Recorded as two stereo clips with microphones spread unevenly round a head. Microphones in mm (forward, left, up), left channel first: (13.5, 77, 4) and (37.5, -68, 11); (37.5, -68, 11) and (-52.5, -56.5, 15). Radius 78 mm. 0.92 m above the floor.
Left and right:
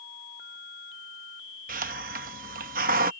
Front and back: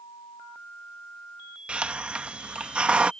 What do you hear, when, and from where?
1.7 s a hiss: 110° right